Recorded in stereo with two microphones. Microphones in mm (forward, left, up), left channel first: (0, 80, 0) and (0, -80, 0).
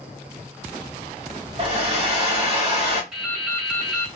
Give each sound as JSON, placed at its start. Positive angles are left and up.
{"t": 1.6, "sound": "a hair dryer", "side_deg": -35, "distance_m": 1.3}
{"t": 3.1, "sound": "dripping", "side_deg": -5, "distance_m": 1.5}